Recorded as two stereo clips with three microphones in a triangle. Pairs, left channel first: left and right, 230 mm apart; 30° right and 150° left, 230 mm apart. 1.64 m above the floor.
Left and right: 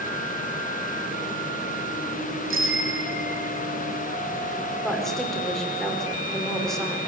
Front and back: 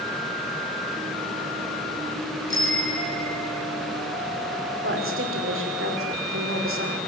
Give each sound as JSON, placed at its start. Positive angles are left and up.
{"t": 2.5, "sound": "a bicycle bell", "azimuth_deg": -60, "distance_m": 2.5}
{"t": 4.8, "sound": "a woman speaking", "azimuth_deg": 180, "distance_m": 6.0}